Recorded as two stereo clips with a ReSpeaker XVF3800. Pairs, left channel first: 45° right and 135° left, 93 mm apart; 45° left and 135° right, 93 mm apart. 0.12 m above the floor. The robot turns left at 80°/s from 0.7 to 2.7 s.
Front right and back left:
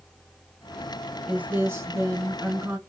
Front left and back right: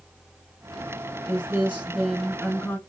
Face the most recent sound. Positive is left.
turn(degrees=85)